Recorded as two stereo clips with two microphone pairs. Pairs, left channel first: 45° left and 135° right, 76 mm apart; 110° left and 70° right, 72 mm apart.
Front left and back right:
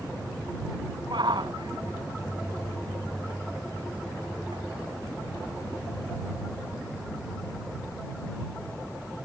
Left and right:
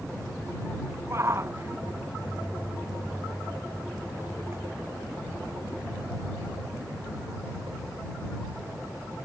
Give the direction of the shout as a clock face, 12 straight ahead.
4 o'clock.